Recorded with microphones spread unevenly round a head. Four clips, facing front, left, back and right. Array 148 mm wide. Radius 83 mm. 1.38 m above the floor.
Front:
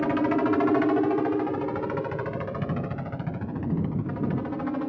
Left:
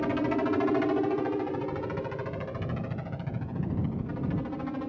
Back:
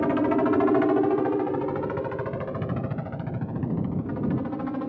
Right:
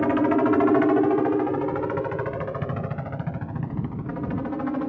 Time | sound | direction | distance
0.0 | a helicopter | 115° right | ?